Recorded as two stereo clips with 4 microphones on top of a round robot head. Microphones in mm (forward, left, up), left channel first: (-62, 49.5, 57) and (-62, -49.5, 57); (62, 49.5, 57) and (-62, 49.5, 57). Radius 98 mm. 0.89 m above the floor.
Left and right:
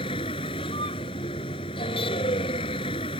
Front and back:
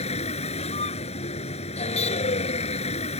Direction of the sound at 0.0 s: 35° left.